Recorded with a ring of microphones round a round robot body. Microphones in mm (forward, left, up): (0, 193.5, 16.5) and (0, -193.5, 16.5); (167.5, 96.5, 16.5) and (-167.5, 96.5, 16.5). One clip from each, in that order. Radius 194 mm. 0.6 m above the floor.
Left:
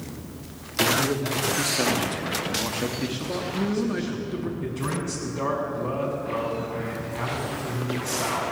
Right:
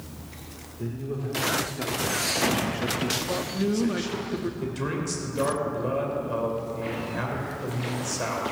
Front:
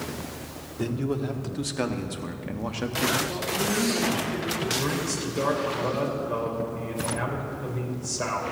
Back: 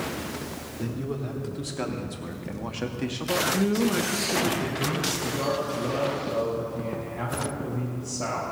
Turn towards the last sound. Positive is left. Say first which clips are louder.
# even, front 1 dB
turn(degrees=-35)